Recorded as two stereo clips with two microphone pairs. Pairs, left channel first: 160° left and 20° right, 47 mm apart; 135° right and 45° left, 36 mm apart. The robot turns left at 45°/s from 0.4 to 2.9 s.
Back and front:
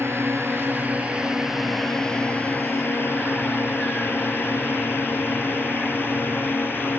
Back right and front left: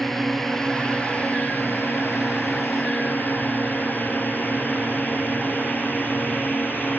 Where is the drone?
55° right; by 7.0 s 160° right.